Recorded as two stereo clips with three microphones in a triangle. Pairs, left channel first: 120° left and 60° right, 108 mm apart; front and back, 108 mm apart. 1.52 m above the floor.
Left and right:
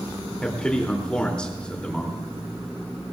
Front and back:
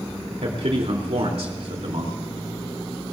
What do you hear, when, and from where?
0.4 s a man speaking: 160° right, 3 m